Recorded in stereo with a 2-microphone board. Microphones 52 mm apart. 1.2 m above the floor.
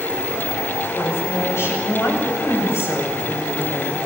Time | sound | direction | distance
0.9 | a woman speaking | 60° left (ahead or behind) | 8.5 m